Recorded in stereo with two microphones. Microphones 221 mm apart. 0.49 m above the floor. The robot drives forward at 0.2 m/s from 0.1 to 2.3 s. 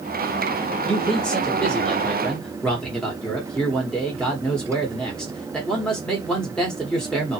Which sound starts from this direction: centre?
A man speaking, at 0.9 s.